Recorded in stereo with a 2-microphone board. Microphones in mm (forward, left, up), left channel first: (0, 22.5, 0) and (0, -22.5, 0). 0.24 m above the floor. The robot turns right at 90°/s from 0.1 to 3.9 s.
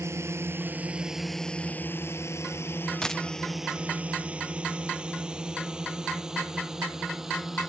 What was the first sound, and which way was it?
A drone, 75° right (ahead or behind).